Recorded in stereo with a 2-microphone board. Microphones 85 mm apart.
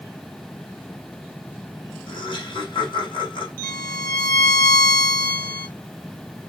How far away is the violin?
About 1.6 m.